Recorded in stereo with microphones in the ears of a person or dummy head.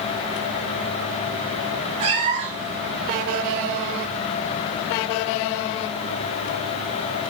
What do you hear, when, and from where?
2.0 s a cat meowing: 30° right (ahead or behind), 1.0 m